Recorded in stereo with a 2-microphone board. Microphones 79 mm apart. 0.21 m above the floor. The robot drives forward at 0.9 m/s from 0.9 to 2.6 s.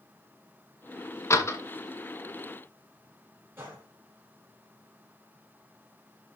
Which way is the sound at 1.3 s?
35° left (ahead or behind).